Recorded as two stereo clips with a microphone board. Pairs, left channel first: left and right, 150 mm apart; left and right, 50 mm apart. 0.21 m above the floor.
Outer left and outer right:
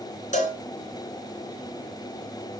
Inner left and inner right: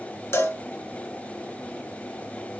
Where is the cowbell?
55° left (ahead or behind), 2.5 m.